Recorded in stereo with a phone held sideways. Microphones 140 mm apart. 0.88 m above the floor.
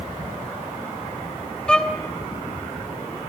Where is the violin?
5° left (ahead or behind), 1.1 m.